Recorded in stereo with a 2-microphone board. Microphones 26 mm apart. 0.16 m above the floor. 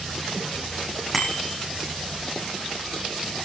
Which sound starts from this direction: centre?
A bicycle bell, at 1.1 s.